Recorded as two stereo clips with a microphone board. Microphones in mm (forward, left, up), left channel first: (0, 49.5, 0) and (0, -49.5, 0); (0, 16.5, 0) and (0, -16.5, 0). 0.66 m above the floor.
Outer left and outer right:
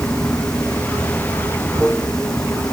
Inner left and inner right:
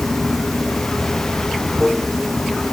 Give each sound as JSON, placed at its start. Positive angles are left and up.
{"t": 0.0, "sound": "running water", "side_deg": 5}